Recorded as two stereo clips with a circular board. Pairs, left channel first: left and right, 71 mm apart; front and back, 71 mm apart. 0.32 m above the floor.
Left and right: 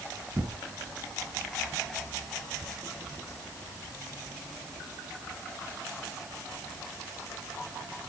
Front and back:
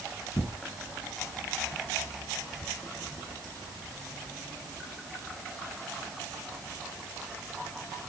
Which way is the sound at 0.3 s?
35° right.